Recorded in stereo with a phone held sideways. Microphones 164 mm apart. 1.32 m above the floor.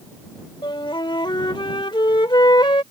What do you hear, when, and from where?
0.6 s a flute: 25° left (ahead or behind)